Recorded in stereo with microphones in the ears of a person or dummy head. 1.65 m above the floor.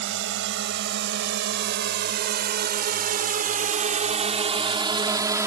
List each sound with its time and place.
0.0 s a drone: 65° right (ahead or behind); by 5.5 s 15° right (ahead or behind)